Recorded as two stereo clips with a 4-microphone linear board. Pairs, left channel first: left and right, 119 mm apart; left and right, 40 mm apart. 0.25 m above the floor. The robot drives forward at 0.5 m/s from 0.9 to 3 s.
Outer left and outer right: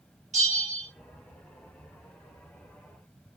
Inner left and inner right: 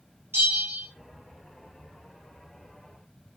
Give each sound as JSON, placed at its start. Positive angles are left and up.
{"t": 0.3, "sound": "a bell", "side_deg": -80, "distance_m": 3.0}